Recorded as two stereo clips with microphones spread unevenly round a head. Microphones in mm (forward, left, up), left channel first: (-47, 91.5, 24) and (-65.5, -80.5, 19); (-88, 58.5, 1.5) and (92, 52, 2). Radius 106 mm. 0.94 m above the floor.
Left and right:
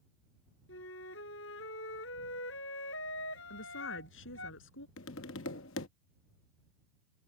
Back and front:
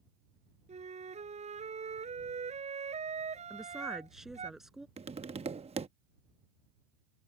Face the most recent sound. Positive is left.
turn(degrees=55)